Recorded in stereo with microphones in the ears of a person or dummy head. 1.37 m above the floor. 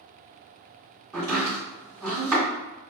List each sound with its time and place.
1.1 s chopping: 15° right (ahead or behind), 1.8 m